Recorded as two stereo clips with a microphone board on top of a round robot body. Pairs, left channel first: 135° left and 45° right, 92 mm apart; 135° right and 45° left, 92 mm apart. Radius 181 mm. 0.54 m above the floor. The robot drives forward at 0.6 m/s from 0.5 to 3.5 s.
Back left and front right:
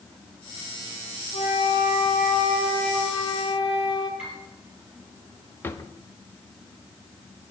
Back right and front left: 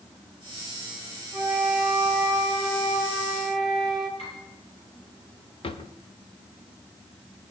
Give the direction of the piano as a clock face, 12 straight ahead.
4 o'clock.